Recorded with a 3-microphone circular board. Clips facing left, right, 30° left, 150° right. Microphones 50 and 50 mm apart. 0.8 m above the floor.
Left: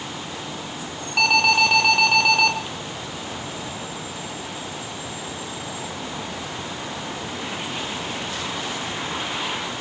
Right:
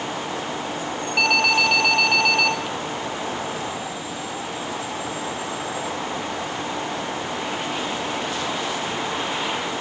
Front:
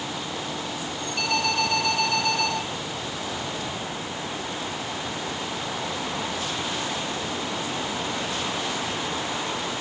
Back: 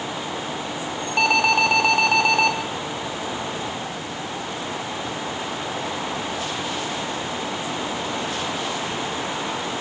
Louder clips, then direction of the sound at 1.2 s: Left 1 dB, back 7 dB; 175° right.